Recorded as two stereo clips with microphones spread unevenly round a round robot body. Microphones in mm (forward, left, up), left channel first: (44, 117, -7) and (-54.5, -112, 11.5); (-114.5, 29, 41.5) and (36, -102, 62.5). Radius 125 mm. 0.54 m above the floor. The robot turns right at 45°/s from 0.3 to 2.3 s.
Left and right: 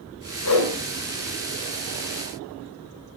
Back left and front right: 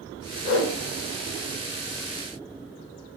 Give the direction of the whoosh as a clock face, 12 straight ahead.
9 o'clock.